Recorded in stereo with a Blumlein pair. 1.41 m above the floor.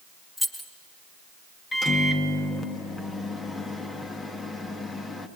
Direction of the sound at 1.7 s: 15° left.